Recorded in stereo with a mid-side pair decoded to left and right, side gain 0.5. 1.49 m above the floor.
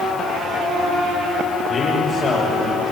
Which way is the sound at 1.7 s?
65° left.